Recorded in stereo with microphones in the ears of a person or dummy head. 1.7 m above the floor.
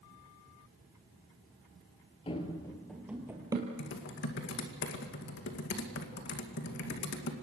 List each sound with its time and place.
2.3 s running footsteps: 25° left (ahead or behind), 1.9 m; by 3.7 s 20° right (ahead or behind), 2.5 m
3.8 s typing on a keyboard: 55° left (ahead or behind), 2 m